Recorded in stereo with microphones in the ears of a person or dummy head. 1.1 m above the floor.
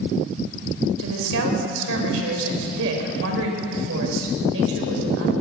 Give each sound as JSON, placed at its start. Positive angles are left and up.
{"t": 1.0, "sound": "a woman speaking", "side_deg": -80, "distance_m": 5.5}